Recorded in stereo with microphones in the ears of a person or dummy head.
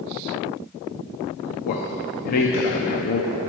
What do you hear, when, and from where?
1.6 s a man speaking: 45° left (ahead or behind), 0.5 m